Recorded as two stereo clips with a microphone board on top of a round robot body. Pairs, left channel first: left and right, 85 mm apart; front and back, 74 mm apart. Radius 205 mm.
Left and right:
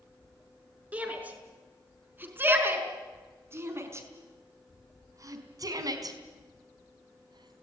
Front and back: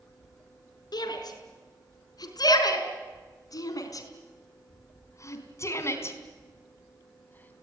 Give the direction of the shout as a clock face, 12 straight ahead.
1 o'clock.